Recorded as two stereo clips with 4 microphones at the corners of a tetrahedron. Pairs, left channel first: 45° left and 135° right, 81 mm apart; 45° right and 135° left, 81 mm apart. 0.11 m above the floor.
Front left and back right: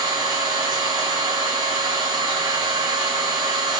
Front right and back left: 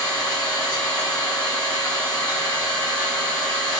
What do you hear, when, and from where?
0.0 s an engine running: 100° right, 2.0 m